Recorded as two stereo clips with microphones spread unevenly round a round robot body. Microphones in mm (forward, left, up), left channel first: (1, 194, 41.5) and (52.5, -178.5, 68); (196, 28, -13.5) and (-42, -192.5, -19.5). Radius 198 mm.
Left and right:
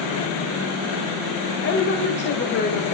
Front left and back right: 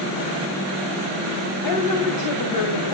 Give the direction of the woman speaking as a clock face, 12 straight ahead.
11 o'clock.